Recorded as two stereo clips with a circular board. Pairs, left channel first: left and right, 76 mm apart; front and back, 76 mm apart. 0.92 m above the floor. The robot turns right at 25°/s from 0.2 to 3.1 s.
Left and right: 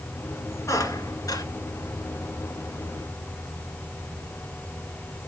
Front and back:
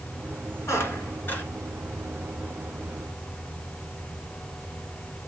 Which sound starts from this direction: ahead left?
A squeak, at 0.7 s.